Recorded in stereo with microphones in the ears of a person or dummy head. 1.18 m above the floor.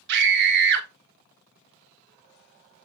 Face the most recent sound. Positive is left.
turn(degrees=-65)  # may be behind; listen again after turning